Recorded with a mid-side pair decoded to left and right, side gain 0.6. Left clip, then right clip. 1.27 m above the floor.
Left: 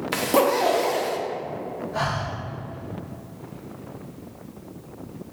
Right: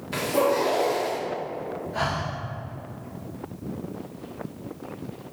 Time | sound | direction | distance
0.1 | a zipper | 55° left | 0.7 m
1.9 | breathing | 15° left | 1.3 m